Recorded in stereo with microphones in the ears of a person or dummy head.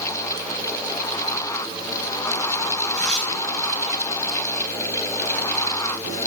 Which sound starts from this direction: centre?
Tearing paper, at 2.9 s.